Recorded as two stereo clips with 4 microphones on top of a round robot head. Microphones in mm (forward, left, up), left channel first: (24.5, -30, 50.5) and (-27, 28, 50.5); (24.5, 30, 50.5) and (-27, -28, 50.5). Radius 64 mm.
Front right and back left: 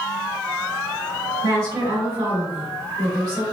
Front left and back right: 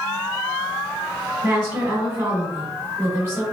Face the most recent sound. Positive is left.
turn(degrees=170)